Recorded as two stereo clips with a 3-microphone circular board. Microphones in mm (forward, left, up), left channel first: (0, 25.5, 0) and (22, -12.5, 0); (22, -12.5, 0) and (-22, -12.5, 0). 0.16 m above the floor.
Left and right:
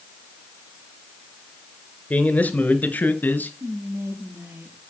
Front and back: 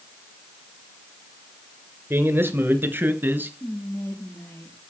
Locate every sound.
2.1 s a man speaking: 170° left, 3 m; by 3.5 s 155° left, 3 m
3.6 s whispering: 30° right, 4.5 m